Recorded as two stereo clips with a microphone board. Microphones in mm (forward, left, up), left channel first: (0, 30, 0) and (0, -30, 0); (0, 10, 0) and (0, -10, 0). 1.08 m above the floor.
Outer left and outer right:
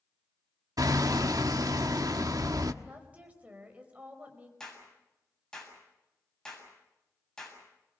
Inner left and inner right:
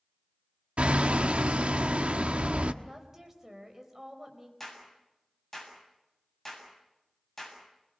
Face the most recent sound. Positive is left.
turn(degrees=10)  # may be behind; listen again after turning